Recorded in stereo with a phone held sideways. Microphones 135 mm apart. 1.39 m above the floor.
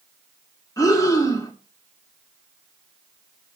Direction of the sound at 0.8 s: 25° left (ahead or behind).